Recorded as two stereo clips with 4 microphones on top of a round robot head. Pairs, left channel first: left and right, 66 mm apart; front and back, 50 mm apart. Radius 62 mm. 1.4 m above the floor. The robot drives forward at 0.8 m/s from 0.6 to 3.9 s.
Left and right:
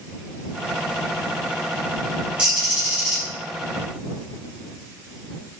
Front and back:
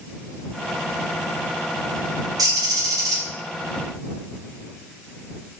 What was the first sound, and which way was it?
A bird, 165° right.